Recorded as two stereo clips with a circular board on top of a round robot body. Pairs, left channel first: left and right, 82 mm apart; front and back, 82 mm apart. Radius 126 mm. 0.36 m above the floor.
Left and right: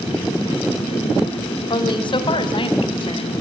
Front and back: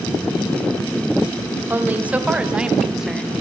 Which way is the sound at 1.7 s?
115° left.